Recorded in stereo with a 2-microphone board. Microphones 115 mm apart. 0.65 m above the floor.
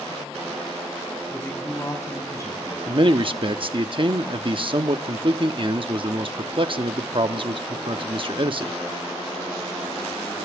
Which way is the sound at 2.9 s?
50° right (ahead or behind).